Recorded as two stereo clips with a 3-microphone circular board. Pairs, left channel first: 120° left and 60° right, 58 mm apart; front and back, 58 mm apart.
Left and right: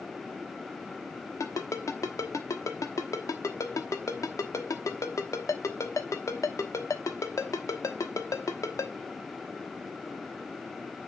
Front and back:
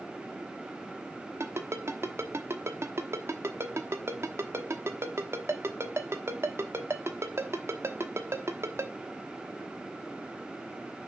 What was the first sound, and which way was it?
A ringtone, 140° left.